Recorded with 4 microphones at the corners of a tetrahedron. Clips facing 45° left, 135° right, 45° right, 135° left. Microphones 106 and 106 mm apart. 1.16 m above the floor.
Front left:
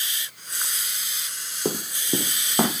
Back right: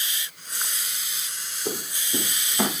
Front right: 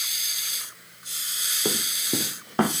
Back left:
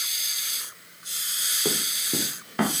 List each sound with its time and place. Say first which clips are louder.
1.6 s running footsteps: front left 5 dB, front right 1 dB; 35° left, 2 m; by 2.7 s 15° left, 3 m